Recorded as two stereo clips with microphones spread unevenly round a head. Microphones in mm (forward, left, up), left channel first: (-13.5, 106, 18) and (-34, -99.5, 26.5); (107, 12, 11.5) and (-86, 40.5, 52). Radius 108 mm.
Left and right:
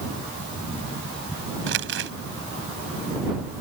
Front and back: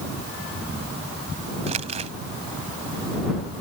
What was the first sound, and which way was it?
Crumpling, 130° right.